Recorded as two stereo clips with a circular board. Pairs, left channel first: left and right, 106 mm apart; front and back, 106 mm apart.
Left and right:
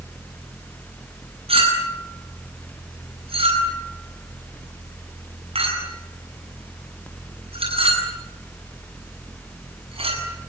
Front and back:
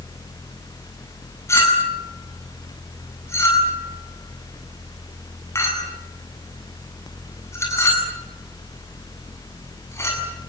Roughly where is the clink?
Ahead right.